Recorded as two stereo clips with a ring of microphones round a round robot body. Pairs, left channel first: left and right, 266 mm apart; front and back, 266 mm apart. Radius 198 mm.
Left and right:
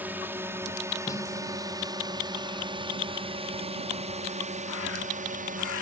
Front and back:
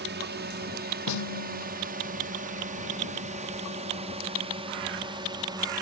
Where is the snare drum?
10° left.